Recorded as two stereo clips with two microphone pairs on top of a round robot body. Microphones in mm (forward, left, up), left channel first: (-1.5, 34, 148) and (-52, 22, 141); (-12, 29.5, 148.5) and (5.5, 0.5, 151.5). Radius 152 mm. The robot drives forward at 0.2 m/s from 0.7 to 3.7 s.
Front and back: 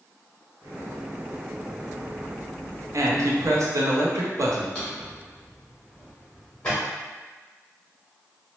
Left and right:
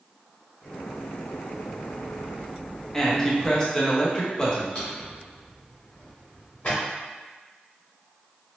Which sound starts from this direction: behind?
A man speaking, at 2.9 s.